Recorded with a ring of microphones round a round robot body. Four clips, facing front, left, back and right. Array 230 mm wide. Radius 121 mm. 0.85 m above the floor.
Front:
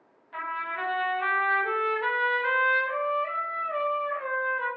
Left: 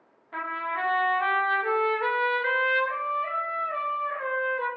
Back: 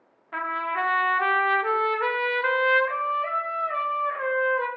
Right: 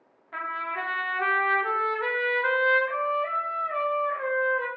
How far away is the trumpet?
About 1.5 m.